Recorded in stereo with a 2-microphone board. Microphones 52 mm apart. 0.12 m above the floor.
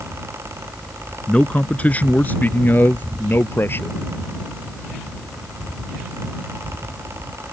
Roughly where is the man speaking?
Left.